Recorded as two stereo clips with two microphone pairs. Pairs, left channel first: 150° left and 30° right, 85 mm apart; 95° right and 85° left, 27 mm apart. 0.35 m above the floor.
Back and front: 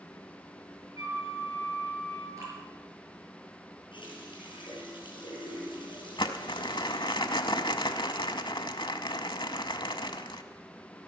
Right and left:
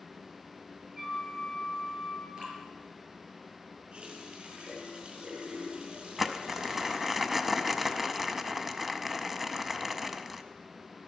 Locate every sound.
0.9 s a flute: 15° left, 6.5 m
2.4 s dripping: 25° left, 5.5 m
3.9 s a running tap: 135° left, 5.5 m
6.2 s crumpling: 165° left, 0.8 m